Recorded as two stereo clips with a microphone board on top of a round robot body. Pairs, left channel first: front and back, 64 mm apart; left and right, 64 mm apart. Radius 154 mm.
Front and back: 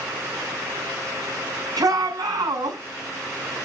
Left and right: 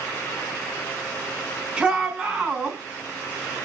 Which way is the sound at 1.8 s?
165° right.